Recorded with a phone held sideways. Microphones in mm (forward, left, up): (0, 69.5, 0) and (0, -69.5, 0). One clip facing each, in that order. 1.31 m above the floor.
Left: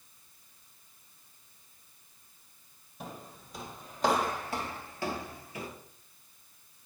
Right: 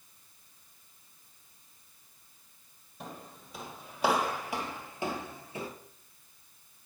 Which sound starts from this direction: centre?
Footsteps, at 3.0 s.